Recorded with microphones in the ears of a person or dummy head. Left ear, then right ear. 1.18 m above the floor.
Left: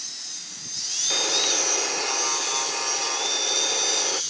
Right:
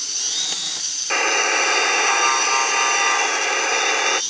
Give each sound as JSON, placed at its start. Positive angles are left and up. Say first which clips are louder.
{"t": 1.1, "sound": "a buzzer", "louder": "right 5 dB", "side_deg": -65}